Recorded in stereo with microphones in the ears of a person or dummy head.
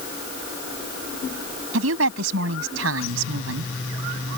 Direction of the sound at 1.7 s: 70° right (ahead or behind).